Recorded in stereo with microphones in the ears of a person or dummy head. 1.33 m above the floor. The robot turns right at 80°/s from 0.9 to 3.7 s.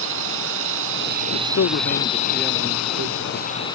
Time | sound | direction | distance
0.0 | a drone | 75° right | ?
1.3 | a man speaking | 85° left | ?